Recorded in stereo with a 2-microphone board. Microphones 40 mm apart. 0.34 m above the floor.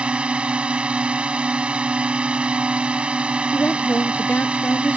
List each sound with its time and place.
0.0 s a drone: 30° right (ahead or behind)
3.5 s a woman speaking: 45° left (ahead or behind)